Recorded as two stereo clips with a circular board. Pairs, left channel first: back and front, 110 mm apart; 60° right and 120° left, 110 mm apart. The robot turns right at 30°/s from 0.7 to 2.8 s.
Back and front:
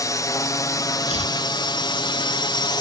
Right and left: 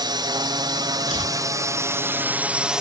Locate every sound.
0.0 s a drone: 140° left; by 2.8 s 160° right
1.1 s chopping: 155° left; by 1.4 s 165° left